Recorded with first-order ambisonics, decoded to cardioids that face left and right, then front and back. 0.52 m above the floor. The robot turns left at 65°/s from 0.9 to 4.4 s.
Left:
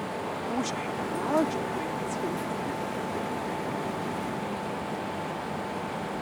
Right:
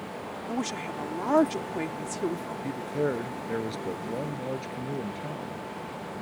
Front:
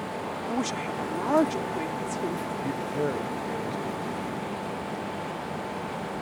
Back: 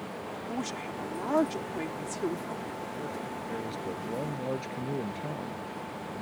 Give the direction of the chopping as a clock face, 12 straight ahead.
No chopping in this recording.